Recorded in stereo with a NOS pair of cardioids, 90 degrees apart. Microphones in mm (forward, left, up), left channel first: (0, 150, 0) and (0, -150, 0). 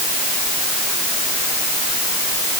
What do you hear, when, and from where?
Only background noise.